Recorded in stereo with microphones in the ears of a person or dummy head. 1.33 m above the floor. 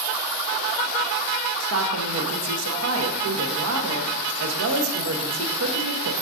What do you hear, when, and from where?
1.6 s a woman speaking: 80° right, 1.0 m